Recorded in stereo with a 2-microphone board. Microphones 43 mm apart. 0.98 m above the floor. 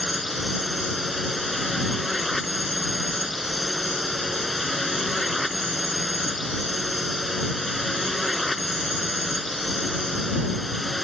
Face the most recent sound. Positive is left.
turn(degrees=0)  # may be behind; listen again after turning